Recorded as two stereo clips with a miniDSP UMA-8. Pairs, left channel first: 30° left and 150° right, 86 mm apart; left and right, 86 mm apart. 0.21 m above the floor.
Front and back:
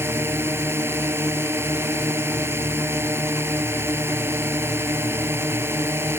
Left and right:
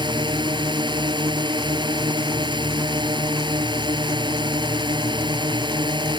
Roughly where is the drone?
Right.